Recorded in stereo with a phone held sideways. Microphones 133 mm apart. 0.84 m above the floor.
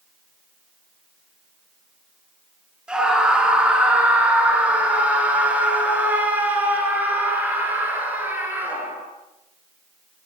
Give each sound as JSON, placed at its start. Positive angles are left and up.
{"t": 2.9, "sound": "a scream", "side_deg": -5, "distance_m": 9.5}